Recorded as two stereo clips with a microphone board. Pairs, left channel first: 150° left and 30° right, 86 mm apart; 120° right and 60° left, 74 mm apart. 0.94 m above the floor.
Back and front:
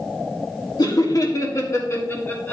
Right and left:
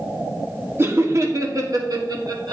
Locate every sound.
0.8 s laughter: 115° left, 1.6 m; by 2.5 s 85° left, 2 m